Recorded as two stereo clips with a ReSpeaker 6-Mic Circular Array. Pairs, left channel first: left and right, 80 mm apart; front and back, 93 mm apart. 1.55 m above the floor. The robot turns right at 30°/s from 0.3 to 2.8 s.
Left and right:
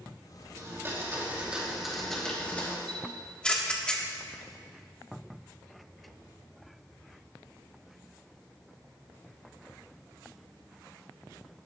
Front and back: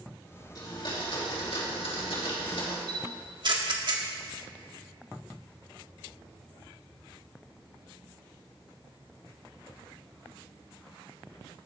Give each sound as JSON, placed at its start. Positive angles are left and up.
{"t": 0.6, "sound": "a blender", "azimuth_deg": -40, "distance_m": 3.0}
{"t": 2.9, "sound": "a camera shutter", "azimuth_deg": 165, "distance_m": 1.6}